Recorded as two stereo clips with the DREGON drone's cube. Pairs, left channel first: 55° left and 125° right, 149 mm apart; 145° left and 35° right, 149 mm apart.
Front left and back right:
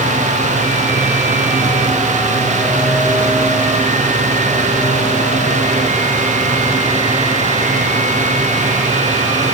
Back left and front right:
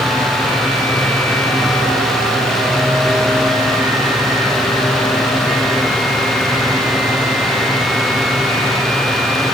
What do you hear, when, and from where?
Only background noise.